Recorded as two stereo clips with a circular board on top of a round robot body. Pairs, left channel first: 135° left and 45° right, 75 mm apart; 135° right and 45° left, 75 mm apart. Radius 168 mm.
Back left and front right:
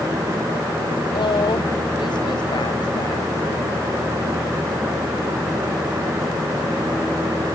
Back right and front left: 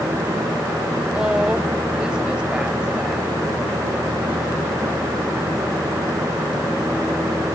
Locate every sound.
1.1 s a woman speaking: 125° left